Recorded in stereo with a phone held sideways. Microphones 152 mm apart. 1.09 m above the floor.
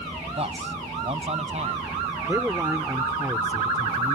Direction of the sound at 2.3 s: 15° right (ahead or behind).